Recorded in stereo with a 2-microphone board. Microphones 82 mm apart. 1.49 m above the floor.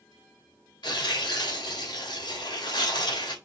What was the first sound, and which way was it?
Tearing paper, 70° left (ahead or behind).